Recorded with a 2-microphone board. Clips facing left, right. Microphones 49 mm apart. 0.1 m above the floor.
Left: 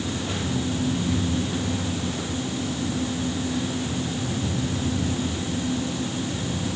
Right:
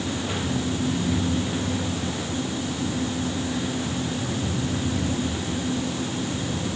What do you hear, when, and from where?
Only background noise.